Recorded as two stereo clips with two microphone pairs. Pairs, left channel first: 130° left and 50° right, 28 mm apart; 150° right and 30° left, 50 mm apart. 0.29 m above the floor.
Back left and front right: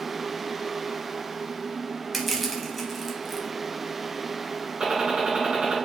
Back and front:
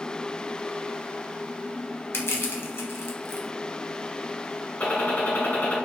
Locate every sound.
2.1 s crushing: 145° right, 0.8 m
4.8 s a gunshot: 100° right, 1.7 m